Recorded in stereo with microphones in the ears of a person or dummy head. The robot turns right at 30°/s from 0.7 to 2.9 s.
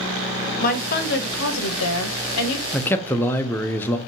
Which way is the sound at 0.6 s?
45° left.